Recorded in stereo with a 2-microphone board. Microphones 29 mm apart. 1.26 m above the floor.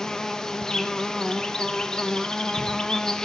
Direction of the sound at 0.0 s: 20° left (ahead or behind).